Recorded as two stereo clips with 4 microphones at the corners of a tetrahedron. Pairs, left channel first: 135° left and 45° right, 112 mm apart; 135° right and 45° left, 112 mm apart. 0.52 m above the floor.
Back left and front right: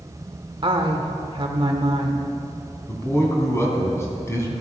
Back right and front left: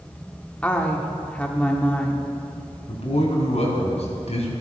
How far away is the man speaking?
About 3.5 m.